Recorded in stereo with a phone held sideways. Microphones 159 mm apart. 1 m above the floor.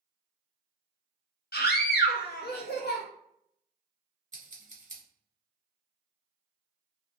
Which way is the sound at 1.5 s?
75° left (ahead or behind).